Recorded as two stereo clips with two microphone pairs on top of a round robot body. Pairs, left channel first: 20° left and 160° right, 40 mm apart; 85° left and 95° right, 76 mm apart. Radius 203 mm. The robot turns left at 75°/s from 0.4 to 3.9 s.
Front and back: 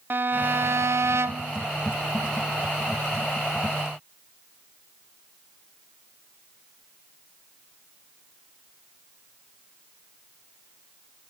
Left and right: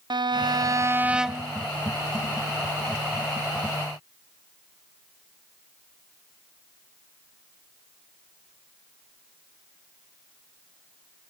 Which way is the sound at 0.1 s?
115° right.